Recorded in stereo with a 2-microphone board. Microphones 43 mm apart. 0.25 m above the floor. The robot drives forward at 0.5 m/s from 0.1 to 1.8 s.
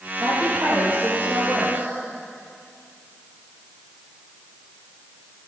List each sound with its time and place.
0.2 s a woman speaking: 65° right (ahead or behind), 9 m; by 1.9 s 60° right (ahead or behind), 9 m